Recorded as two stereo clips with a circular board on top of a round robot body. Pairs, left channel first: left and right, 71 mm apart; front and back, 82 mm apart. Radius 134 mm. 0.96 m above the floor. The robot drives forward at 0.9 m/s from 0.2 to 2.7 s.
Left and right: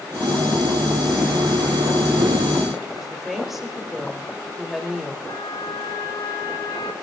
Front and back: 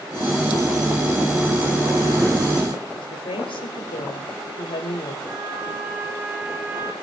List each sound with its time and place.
2.9 s a woman speaking: 5° right, 4 m
5.3 s a trumpet: 115° left, 4 m